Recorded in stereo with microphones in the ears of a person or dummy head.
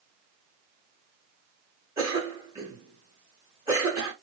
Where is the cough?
15° right (ahead or behind), 1.1 m.